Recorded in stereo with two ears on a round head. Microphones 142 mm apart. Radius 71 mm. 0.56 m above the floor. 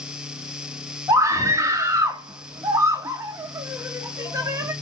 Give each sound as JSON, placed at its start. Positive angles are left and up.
{"t": 1.1, "sound": "a scream", "side_deg": -20, "distance_m": 0.9}